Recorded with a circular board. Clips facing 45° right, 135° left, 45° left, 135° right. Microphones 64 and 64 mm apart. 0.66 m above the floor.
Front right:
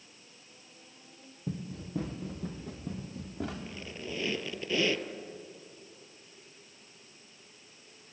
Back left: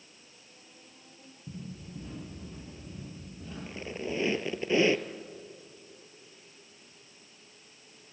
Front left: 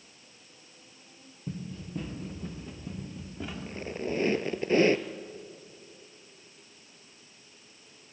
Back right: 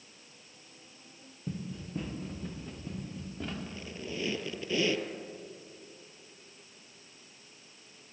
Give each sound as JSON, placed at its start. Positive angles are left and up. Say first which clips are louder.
{"t": 1.5, "sound": "running footsteps", "louder": "front right 5 dB, even", "azimuth_deg": -50, "distance_m": 5.5}
{"t": 3.7, "sound": "a squeak", "louder": "back left 5 dB, front left 7 dB", "azimuth_deg": 75, "distance_m": 1.0}